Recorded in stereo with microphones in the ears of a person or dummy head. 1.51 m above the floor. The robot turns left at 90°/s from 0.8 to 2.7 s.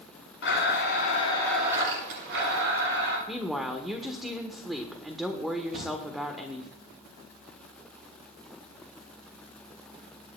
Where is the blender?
70° left, 7 m; by 3.2 s 100° right, 7 m.